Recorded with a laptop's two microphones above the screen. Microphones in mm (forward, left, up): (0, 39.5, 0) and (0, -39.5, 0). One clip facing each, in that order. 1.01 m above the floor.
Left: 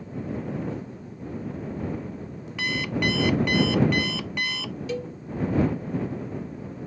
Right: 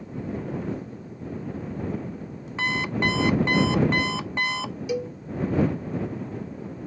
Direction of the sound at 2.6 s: 30° right (ahead or behind).